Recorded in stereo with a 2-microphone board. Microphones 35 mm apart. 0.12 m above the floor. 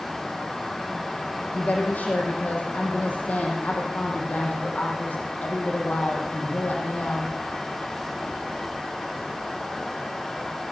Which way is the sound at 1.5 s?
50° left (ahead or behind).